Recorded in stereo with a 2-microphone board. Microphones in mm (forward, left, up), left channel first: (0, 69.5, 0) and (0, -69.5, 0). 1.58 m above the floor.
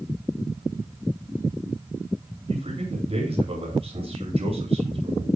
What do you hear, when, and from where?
2.5 s a man speaking: 45° right (ahead or behind), 10 m